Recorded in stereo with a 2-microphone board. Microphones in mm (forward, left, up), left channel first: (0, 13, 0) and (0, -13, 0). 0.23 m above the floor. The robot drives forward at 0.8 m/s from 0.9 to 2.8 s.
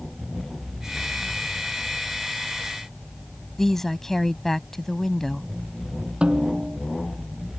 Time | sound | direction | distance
3.6 | a woman speaking | 15° left (ahead or behind) | ?
6.2 | a snare drum | 45° right (ahead or behind) | ?